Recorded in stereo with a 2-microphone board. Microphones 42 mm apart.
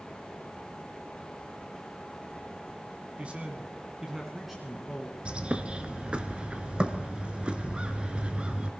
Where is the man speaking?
30° right (ahead or behind), 1.4 m; by 5.2 s 5° left (ahead or behind), 2.0 m.